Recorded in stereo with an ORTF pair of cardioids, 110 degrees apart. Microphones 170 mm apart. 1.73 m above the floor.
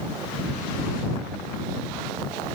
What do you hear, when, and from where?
Only background noise.